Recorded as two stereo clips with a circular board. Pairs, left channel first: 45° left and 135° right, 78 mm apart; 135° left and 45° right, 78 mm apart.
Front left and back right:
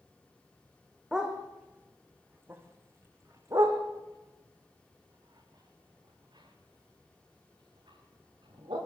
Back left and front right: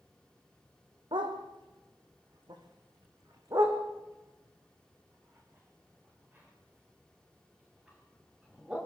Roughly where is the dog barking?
Ahead right.